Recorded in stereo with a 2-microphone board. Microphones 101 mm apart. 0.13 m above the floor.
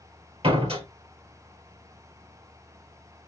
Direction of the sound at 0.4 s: 65° right (ahead or behind).